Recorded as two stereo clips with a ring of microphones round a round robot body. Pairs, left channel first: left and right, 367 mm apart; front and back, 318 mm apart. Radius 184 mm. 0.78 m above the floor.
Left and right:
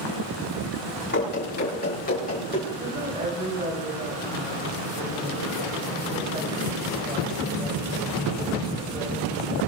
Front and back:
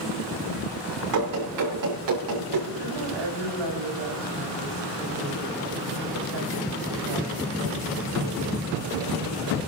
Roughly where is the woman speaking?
Behind.